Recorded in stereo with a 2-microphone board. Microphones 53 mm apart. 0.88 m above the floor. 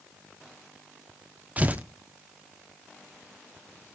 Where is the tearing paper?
30° right (ahead or behind), 1.0 m.